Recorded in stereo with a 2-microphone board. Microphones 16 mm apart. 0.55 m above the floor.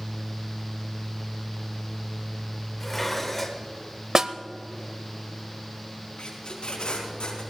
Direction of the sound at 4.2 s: 35° right (ahead or behind).